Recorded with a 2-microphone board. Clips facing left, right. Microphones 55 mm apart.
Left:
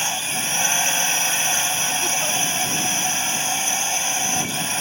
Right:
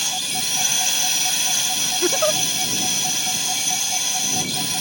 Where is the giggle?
55° right (ahead or behind).